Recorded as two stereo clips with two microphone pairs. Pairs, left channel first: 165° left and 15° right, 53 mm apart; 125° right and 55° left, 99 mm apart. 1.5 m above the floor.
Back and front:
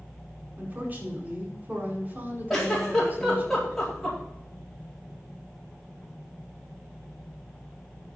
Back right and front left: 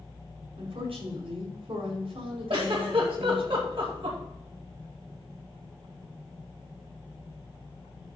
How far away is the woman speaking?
About 5 m.